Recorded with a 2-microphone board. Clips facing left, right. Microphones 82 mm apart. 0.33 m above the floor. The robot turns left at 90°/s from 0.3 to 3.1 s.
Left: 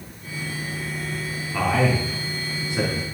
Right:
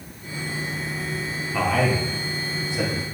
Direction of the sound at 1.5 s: Centre (ahead or behind).